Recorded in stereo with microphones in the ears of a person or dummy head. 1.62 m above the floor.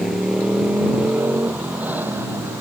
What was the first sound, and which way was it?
A motorcycle, centre (ahead or behind).